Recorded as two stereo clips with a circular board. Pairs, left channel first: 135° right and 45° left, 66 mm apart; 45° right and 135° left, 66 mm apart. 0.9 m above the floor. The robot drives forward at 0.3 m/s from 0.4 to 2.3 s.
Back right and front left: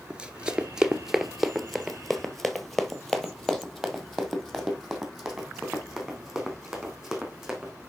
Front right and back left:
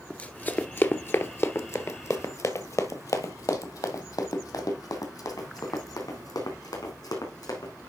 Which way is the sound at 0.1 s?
5° right.